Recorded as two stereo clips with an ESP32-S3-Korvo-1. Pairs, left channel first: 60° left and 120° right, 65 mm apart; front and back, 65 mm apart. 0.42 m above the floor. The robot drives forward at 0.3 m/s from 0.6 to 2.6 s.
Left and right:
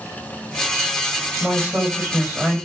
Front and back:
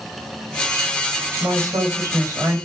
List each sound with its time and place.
1.4 s a woman speaking: 175° left, 2.5 m